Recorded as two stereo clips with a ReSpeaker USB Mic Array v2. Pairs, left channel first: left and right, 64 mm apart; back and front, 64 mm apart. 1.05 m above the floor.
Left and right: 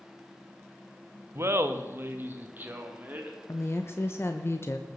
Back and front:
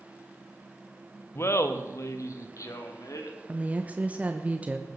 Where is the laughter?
135° right, 1.1 m; by 3.4 s 155° right, 2.5 m.